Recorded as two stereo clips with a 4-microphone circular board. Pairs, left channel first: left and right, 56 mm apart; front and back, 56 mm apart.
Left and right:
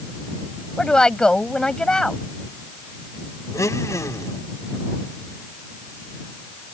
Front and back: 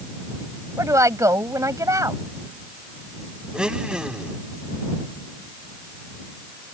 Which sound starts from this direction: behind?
A woman speaking, at 0.8 s.